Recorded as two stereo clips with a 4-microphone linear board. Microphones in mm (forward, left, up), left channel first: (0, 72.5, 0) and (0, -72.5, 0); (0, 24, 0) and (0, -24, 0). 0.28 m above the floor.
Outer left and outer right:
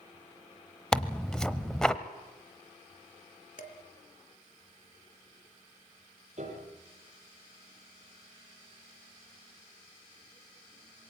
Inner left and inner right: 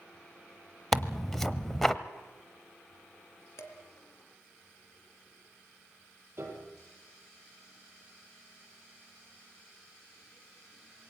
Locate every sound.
0.9 s tearing paper: 5° left (ahead or behind), 0.9 m
3.6 s dishes clattering: 60° left (ahead or behind), 2 m
6.4 s a piano: 50° right (ahead or behind), 5.5 m